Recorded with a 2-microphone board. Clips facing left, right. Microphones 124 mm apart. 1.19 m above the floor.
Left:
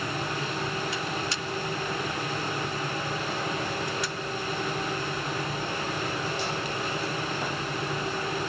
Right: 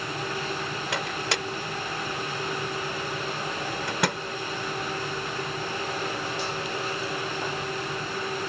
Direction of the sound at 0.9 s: 85° right.